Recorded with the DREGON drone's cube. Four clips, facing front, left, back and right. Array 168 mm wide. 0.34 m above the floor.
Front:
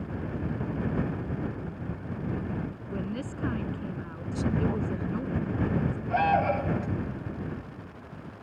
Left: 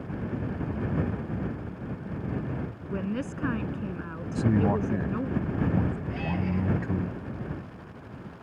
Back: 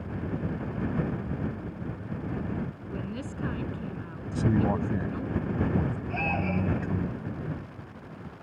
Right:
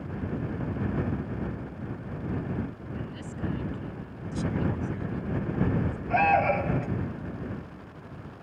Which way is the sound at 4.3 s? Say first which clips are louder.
Left 5 dB, back 3 dB; 125° left.